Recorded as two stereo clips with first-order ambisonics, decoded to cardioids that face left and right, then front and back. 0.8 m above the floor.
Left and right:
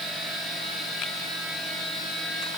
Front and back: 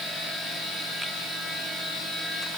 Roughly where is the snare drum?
I don't hear a snare drum.